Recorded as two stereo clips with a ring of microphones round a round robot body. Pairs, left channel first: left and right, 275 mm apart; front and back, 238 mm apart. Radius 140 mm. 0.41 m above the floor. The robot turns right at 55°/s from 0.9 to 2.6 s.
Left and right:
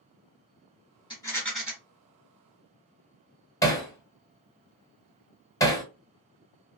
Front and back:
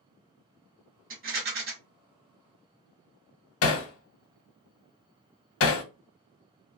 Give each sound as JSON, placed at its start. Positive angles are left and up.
{"t": 1.1, "sound": "a rattle", "azimuth_deg": 155, "distance_m": 1.4}
{"t": 3.6, "sound": "hammering", "azimuth_deg": 15, "distance_m": 0.6}